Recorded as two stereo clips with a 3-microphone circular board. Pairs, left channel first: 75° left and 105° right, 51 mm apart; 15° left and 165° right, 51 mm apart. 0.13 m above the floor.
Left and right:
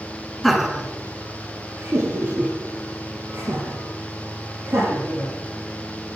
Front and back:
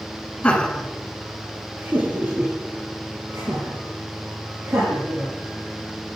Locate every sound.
0.4 s laughter: 10° right, 1.5 m; by 5.3 s 140° right, 6 m